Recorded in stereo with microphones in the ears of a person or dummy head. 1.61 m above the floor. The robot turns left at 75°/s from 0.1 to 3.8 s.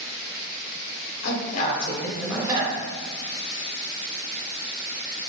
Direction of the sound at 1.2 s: 75° left.